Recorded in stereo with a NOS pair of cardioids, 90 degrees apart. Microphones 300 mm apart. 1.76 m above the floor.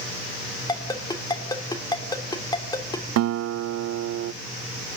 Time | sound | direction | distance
0.7 | a ringtone | 15° left | 3.5 m
3.2 | a guitar | 60° right | 0.6 m